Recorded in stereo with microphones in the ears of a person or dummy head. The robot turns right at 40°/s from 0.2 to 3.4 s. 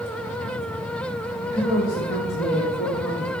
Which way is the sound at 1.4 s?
50° left.